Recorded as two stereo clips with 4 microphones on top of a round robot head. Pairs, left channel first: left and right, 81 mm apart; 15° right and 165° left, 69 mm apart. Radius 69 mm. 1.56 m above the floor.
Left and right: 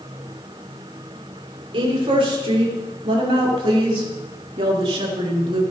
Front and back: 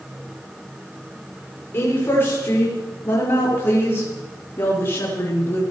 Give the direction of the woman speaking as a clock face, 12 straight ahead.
3 o'clock.